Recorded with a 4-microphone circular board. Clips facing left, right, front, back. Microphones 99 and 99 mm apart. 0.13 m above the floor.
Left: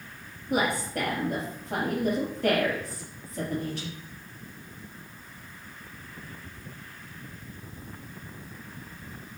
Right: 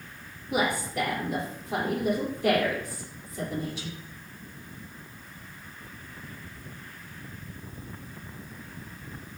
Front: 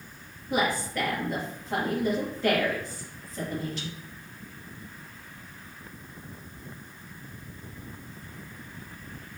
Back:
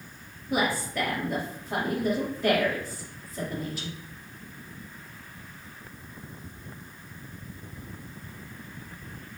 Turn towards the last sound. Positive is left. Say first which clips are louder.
# even, even
turn(degrees=95)